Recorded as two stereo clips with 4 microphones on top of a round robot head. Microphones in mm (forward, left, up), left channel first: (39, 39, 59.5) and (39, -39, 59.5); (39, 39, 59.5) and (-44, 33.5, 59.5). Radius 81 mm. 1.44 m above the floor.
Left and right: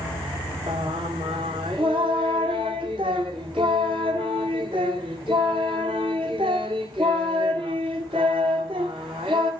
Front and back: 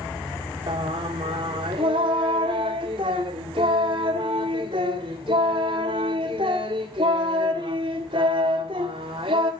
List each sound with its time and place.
0.7 s singing: 130° right, 1.7 m